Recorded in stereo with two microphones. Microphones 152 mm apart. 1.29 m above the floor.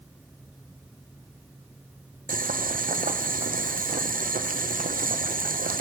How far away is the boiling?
About 0.6 m.